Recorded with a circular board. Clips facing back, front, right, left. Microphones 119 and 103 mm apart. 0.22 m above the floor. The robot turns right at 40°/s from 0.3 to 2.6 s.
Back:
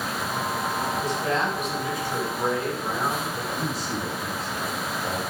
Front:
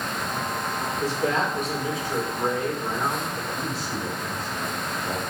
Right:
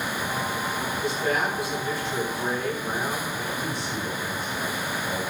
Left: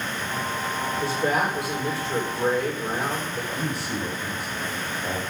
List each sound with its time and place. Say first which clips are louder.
1.0 s a man speaking: front 3 dB, left 2 dB; 30° left, 6.5 m; by 3.4 s 95° left, 6.5 m
3.5 s a man speaking: back 1 dB, left 1 dB; 120° left, 6 m